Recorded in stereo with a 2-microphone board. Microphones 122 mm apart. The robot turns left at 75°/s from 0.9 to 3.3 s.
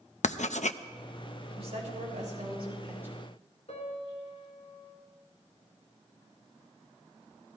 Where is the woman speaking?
50° right, 4 m; by 3.2 s 175° right, 4 m.